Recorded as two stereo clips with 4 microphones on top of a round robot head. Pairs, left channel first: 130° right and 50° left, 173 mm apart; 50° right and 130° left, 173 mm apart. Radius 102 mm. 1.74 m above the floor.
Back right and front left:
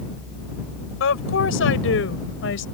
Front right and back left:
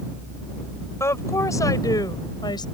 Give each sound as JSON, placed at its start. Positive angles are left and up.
{"t": 1.0, "sound": "a woman speaking", "azimuth_deg": -125}